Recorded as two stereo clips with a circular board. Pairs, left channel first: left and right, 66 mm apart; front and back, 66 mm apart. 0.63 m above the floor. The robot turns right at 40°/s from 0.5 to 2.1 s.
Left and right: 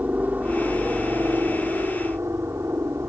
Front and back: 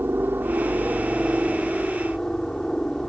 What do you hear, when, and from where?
0.0 s a helicopter: 140° right; by 3.1 s 80° right